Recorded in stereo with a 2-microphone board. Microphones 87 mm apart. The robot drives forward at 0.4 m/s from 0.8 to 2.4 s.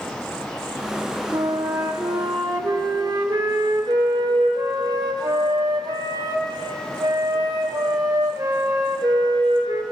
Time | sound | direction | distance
1.3 | a flute | 35° right (ahead or behind) | 0.8 m